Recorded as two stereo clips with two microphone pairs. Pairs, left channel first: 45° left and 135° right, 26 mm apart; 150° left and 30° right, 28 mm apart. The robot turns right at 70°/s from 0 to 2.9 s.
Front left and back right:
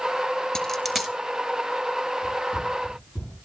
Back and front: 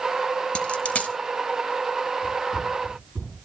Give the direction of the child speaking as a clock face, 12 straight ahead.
No child speaking in this recording.